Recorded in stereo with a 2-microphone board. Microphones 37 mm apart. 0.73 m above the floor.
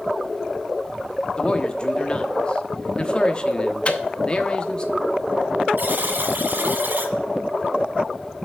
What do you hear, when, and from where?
1.4 s a man speaking: 25° left (ahead or behind), 1.0 m
3.9 s a microwave: 30° left (ahead or behind), 0.8 m
5.8 s a buzzer: 60° right (ahead or behind), 1.3 m